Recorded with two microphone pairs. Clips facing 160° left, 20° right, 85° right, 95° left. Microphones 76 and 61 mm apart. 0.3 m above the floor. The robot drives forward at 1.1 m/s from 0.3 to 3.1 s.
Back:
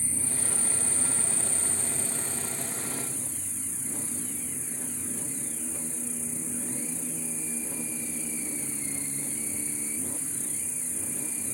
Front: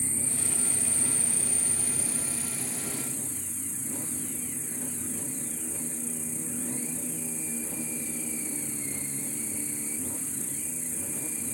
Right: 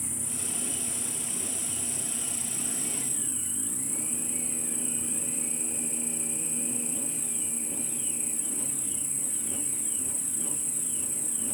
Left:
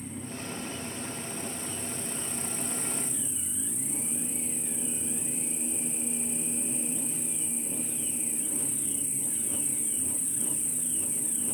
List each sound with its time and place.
0.0 s an insect: 90° right; by 11.6 s 110° right